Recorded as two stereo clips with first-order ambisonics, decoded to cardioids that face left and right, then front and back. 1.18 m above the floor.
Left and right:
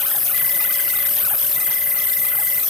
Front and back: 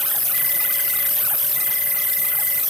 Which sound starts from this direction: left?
An insect, at 0.0 s.